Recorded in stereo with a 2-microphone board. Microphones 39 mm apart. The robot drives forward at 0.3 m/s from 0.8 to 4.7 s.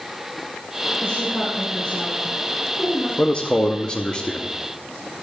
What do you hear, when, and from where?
1.0 s a woman speaking: 45° left (ahead or behind), 1.6 m; by 3.1 s 35° left (ahead or behind), 2 m
3.2 s a man speaking: 30° left (ahead or behind), 0.6 m; by 4.5 s 20° left (ahead or behind), 0.8 m